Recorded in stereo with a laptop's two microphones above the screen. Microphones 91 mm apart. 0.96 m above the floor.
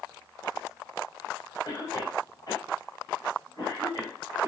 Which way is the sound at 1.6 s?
40° left (ahead or behind).